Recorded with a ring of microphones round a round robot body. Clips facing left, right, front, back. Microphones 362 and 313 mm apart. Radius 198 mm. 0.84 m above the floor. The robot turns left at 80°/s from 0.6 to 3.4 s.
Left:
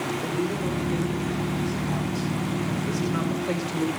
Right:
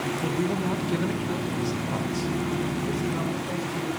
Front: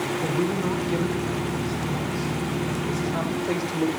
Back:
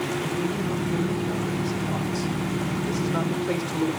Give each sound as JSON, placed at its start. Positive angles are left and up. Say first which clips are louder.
{"t": 0.2, "sound": "a man speaking", "louder": "right 2 dB, front 2 dB", "azimuth_deg": -20, "distance_m": 3.0}